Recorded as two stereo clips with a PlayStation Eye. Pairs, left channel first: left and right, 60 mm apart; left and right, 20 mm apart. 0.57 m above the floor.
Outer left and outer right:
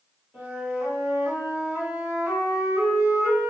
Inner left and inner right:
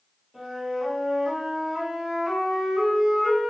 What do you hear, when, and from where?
0.3 s a flute: 35° right (ahead or behind), 1.7 m